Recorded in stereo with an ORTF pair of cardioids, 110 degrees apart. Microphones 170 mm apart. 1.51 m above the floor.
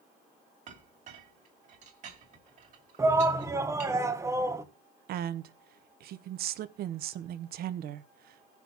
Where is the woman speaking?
65° right, 0.8 m.